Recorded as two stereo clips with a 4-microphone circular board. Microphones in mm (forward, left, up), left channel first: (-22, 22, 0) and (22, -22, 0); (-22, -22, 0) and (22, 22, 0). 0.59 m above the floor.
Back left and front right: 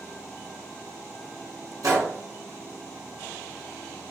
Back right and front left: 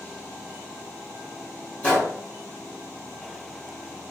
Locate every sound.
1.8 s a gunshot: 70° right, 1.9 m